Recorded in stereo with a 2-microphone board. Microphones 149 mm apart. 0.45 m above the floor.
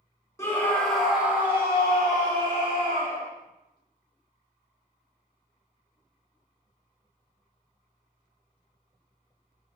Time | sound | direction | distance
0.4 | a scream | 20° left (ahead or behind) | 0.9 m